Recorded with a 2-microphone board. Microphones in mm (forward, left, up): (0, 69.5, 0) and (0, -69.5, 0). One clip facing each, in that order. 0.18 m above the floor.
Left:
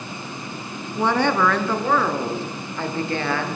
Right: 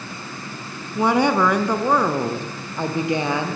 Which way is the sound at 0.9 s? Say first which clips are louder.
Right 2 dB; 10° right (ahead or behind).